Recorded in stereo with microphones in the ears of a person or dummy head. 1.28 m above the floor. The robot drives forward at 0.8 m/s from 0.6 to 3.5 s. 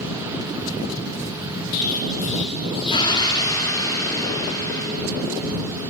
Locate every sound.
1.7 s an explosion: 45° left (ahead or behind), 0.8 m; by 4.9 s 20° left (ahead or behind), 1.8 m